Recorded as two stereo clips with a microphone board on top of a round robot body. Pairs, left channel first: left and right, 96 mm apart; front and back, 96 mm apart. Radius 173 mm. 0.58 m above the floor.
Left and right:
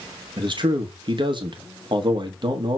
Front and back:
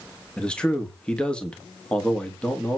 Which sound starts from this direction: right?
A man speaking, at 0.4 s.